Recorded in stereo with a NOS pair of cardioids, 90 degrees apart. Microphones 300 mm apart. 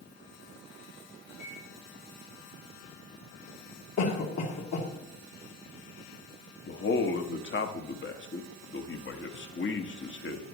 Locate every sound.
1.4 s a microwave: 65° left, 3 m
4.0 s a cough: 60° left, 3 m
6.7 s a man speaking: 40° left, 1.4 m